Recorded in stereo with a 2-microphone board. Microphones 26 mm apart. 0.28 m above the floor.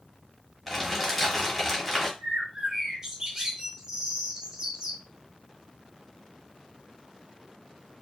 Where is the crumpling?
Centre (ahead or behind), 1.0 m.